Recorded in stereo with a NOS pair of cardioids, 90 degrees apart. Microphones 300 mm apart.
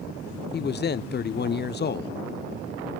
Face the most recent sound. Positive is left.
turn(degrees=35)